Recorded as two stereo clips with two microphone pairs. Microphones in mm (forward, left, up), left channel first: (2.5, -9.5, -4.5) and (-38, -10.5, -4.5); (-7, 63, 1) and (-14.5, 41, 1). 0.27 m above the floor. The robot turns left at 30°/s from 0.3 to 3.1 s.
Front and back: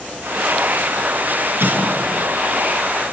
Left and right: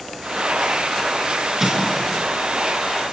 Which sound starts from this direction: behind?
An explosion, at 1.6 s.